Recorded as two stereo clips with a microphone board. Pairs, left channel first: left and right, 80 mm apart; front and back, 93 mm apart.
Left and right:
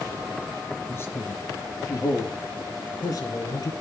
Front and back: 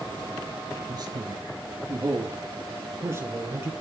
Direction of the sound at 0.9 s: 145° left.